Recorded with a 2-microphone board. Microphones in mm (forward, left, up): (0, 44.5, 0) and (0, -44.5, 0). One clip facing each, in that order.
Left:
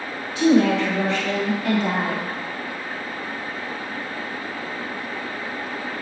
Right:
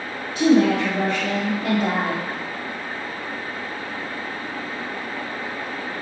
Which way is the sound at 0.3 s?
30° right (ahead or behind).